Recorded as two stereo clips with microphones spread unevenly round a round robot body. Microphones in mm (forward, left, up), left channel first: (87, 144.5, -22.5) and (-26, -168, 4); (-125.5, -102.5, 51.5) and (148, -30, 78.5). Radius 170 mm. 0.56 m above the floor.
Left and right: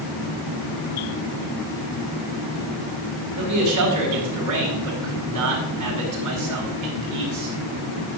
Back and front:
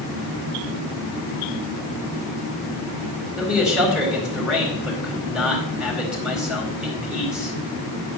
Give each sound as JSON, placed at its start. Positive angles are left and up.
{"t": 3.4, "sound": "a man speaking", "azimuth_deg": -75, "distance_m": 4.5}